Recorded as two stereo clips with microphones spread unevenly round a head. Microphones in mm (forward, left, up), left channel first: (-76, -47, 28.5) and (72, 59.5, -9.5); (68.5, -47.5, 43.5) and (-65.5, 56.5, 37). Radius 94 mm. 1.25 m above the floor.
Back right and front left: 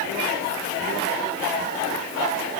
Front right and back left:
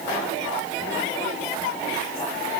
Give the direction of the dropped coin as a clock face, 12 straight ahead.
I don't hear a dropped coin.